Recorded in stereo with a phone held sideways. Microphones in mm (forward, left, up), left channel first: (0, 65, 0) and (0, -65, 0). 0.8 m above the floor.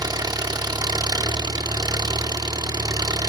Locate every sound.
0.0 s an engine running: 30° right (ahead or behind), 0.7 m